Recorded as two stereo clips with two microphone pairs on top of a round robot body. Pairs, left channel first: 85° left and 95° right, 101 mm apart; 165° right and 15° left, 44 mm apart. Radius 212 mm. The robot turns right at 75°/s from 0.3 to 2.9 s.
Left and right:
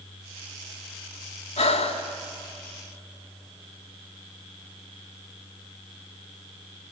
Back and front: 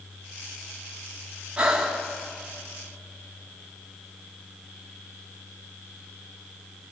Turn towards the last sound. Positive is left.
turn(degrees=180)